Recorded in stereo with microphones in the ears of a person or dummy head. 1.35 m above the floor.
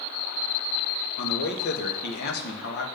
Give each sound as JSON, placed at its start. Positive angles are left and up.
{"t": 1.2, "sound": "a man speaking", "side_deg": 65, "distance_m": 1.8}